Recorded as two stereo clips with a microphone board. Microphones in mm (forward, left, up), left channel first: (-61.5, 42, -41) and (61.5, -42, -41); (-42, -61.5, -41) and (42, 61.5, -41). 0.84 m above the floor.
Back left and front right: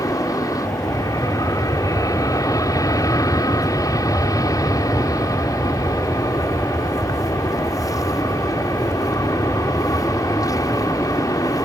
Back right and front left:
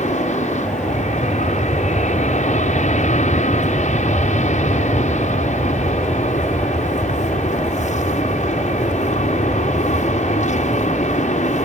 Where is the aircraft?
150° right.